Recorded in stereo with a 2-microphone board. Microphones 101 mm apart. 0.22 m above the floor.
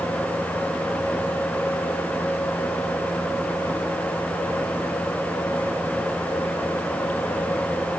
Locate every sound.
Only background noise.